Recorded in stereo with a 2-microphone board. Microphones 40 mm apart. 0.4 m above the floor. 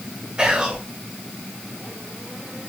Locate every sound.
0.4 s whispering: 20° right (ahead or behind), 1.1 m